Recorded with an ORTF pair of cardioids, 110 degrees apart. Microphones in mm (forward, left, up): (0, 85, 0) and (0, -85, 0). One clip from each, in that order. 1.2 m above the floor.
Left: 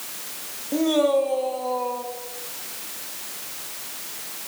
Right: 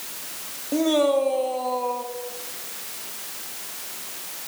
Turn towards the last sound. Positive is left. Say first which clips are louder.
# even
turn(degrees=-10)